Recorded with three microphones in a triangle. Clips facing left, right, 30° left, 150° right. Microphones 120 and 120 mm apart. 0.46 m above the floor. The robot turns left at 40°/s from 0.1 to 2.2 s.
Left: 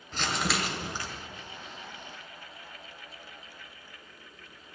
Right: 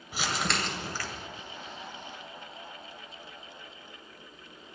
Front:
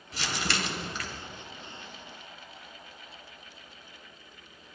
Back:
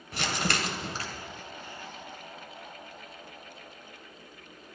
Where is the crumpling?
170° right, 1.9 m; by 1.1 s 155° left, 1.9 m.